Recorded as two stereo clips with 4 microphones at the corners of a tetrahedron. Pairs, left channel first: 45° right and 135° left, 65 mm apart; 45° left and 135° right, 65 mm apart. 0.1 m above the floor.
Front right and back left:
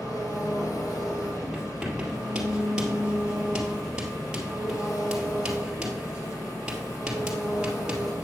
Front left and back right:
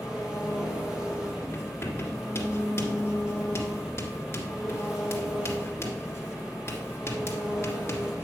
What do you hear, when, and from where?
0.0 s an engine running: 60° right, 3 m
1.5 s writing: 65° left, 2.5 m